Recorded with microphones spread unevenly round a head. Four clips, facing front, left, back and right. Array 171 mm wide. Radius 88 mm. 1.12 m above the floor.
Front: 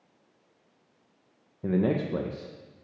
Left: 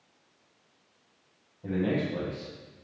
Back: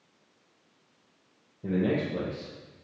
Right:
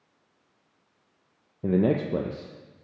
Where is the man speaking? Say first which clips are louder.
Right 5 dB, front 1 dB; 85° right, 0.6 m.